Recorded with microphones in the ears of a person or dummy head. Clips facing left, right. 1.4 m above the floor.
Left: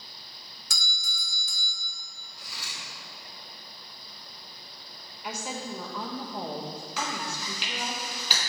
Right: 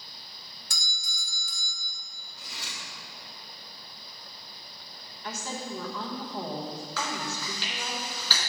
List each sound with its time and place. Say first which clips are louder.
0.7 s a doorbell: left 4 dB; 65° left (ahead or behind), 1.5 m
2.4 s cutlery clinking: right 1 dB; 20° right (ahead or behind), 1.6 m
5.2 s a woman speaking: left 1 dB; 15° left (ahead or behind), 1.2 m
7.0 s chewing: even; 20° left (ahead or behind), 3 m